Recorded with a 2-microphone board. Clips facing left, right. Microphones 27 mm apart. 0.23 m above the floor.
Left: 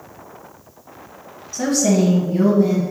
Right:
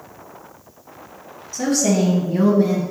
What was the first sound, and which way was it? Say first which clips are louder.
A woman speaking: left 1 dB; 15° left (ahead or behind).